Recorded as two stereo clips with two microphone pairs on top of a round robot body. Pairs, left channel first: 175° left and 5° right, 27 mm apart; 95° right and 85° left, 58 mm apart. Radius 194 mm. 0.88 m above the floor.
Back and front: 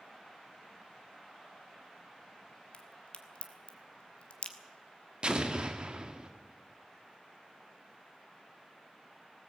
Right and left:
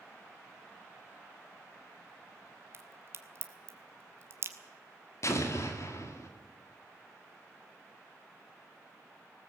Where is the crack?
130° left, 1.5 m.